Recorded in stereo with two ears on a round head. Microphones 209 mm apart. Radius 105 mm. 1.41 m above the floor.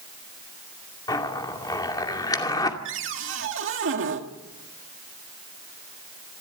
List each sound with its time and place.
1.1 s a zipper: 15° left (ahead or behind), 2.5 m
2.9 s a cupboard door: 55° right (ahead or behind), 2 m